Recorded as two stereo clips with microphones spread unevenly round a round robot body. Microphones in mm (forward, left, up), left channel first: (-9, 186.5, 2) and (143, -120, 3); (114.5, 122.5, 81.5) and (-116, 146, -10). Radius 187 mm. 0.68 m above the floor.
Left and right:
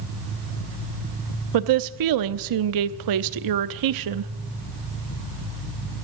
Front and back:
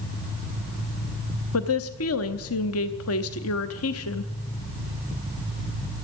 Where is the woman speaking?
55° right, 0.8 m.